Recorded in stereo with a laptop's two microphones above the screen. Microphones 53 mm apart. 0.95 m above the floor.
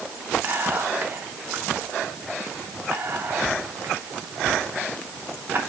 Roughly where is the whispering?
Right.